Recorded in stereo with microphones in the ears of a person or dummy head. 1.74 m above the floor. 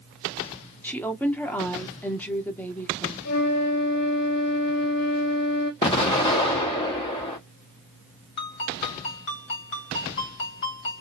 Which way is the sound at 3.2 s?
50° left (ahead or behind).